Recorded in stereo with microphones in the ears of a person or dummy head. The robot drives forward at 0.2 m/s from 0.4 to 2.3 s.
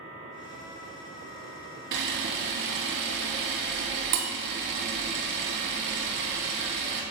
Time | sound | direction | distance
1.9 | a camera shutter | 60° right (ahead or behind) | 1.1 m